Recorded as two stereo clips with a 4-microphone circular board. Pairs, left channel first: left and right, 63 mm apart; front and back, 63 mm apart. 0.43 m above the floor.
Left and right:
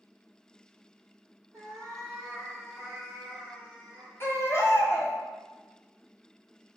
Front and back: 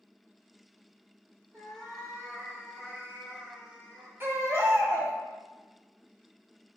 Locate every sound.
1.5 s a cat meowing: 130° right, 1.4 m; by 4.1 s 135° right, 4 m
4.2 s a baby crying: 130° left, 1.0 m